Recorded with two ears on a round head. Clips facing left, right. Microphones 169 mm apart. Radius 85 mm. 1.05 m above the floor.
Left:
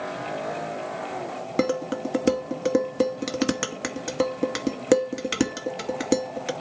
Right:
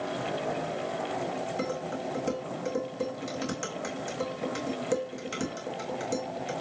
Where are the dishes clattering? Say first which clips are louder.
Left 8 dB; 80° left, 1.2 m.